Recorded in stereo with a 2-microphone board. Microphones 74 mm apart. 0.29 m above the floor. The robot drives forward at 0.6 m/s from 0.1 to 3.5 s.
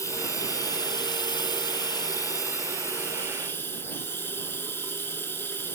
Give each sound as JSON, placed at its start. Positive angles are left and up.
{"t": 0.0, "sound": "running water", "side_deg": 45, "distance_m": 1.1}